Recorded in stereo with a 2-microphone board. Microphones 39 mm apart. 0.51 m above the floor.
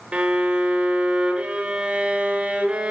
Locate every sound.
0.1 s a violin: 30° right (ahead or behind), 0.9 m